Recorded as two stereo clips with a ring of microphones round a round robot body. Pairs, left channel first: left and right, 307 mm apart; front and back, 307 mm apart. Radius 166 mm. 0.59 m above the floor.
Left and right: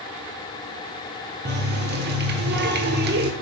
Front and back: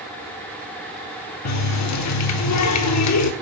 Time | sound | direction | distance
1.4 | a running tap | 30° right | 1.0 m